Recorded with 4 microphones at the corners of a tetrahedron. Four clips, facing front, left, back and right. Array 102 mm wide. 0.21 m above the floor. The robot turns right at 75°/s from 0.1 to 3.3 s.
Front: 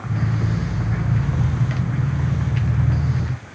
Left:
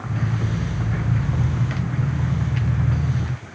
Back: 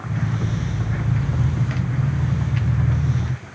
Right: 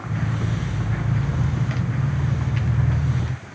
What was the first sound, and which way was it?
Only background noise.